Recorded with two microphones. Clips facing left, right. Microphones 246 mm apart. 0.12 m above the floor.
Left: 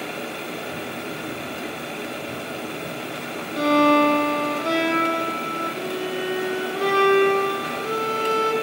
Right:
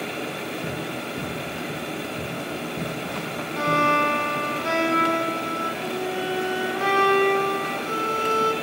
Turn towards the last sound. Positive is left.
turn(degrees=40)  # may be behind; listen again after turning